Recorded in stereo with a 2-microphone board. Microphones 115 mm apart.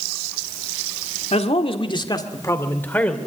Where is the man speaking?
70° left (ahead or behind), 1.8 m; by 3.2 s 10° left (ahead or behind), 2.5 m.